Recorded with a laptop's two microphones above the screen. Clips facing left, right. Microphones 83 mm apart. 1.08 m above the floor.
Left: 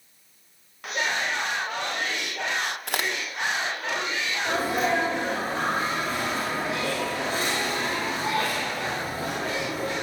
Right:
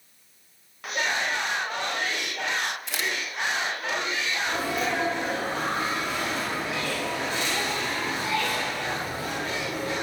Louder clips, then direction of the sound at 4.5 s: Left 5 dB; 45° left (ahead or behind).